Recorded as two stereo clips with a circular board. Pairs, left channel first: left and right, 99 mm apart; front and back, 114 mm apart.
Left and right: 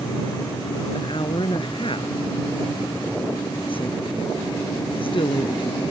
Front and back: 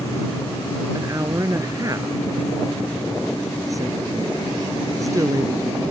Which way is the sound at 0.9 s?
120° left.